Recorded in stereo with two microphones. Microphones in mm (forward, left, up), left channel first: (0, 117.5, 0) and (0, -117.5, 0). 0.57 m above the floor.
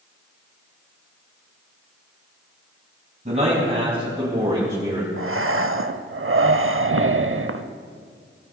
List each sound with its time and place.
3.2 s a man speaking: 30° right (ahead or behind), 4 m; by 5.1 s 20° right (ahead or behind), 2.5 m
5.2 s breathing: 60° right (ahead or behind), 0.5 m